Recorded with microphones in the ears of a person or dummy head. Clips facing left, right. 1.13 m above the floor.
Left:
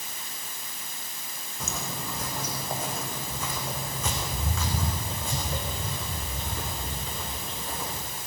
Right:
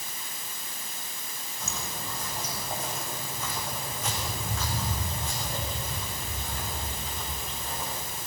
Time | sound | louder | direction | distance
1.6 | footsteps | left 3 dB | 60° left (ahead or behind) | 4.5 m